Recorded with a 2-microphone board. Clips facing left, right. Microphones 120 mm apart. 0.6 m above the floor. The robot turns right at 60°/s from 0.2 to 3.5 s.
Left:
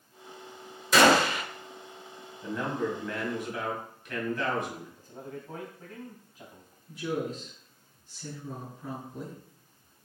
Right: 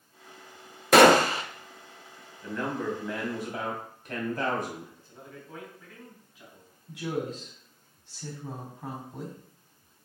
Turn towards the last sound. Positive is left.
turn(degrees=-80)